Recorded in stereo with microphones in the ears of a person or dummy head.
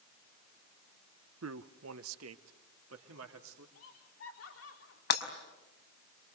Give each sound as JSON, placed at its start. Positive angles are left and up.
{"t": 1.4, "sound": "a man speaking", "side_deg": -65, "distance_m": 0.8}
{"t": 3.8, "sound": "laughter", "side_deg": 85, "distance_m": 4.0}
{"t": 5.1, "sound": "breaking glass", "side_deg": 60, "distance_m": 5.0}